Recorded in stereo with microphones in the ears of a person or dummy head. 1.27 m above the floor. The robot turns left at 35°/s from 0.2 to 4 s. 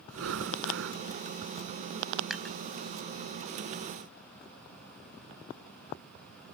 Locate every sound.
0.1 s breathing: 85° right; by 1.0 s 65° right (ahead or behind)
2.3 s dishes clattering: centre (ahead or behind); by 2.6 s 10° left (ahead or behind)